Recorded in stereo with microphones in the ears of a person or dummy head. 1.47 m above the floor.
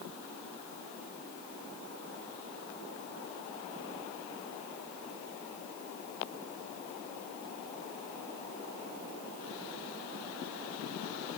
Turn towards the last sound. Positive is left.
No sound to turn to.